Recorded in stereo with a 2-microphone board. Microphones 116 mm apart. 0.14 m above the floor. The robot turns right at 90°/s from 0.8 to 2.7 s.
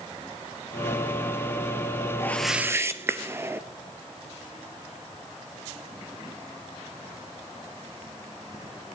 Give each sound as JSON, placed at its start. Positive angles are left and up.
{"t": 2.2, "sound": "a whoosh", "azimuth_deg": 155, "distance_m": 0.8}